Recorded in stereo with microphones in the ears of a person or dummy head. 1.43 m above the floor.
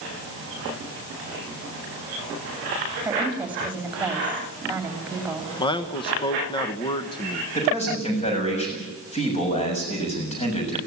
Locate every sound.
3.0 s a woman speaking: 5° right (ahead or behind), 2.5 m
5.6 s a man speaking: 30° left (ahead or behind), 1.1 m
7.5 s a man speaking: 40° left (ahead or behind), 7.5 m